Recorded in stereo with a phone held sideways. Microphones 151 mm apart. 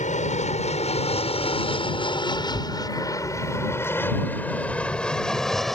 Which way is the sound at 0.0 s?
50° left (ahead or behind).